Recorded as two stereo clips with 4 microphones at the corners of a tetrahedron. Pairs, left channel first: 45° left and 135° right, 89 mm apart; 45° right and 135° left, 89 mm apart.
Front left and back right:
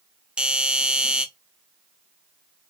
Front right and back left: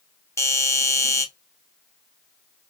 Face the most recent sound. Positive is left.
turn(degrees=-60)